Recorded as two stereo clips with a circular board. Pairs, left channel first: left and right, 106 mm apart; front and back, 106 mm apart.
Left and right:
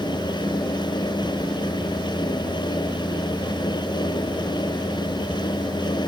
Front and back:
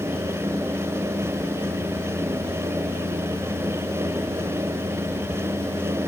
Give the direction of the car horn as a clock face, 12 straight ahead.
No car horn in this recording.